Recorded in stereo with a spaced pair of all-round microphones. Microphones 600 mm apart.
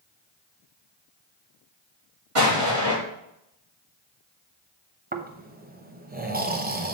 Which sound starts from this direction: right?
An explosion, at 2.4 s.